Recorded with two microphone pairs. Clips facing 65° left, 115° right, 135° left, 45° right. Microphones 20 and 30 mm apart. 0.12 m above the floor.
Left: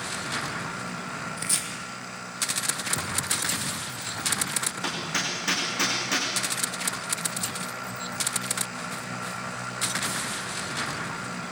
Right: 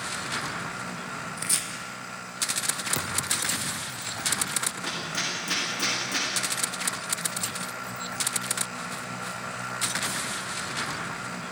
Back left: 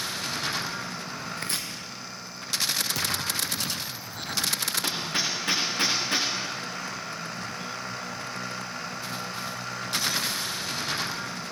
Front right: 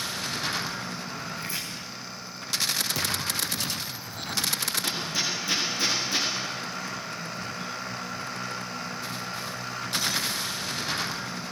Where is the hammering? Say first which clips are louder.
Left 1 dB, even; 105° left, 8.5 m.